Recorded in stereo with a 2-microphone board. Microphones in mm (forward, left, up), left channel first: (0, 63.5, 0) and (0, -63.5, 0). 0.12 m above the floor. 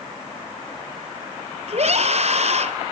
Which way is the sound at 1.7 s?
55° right (ahead or behind).